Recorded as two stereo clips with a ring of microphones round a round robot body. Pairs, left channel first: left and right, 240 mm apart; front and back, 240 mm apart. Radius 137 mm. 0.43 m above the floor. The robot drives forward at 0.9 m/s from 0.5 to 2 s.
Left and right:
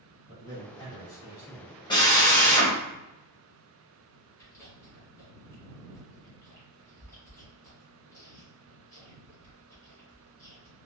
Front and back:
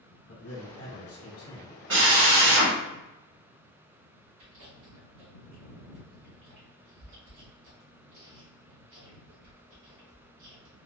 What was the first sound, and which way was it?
A man speaking, 10° left.